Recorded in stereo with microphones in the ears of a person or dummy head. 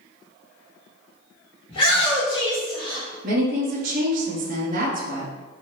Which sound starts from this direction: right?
A woman speaking, at 3.2 s.